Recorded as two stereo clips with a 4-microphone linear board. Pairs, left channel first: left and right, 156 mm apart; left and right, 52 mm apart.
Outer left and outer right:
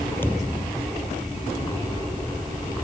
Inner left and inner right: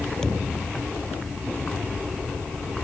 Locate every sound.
0.2 s a thud: 15° left (ahead or behind)